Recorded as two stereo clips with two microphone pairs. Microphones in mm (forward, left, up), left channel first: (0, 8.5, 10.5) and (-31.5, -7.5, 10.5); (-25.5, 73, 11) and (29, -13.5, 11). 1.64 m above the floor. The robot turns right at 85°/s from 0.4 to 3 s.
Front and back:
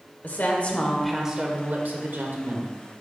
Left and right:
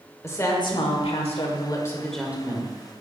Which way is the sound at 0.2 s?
60° left.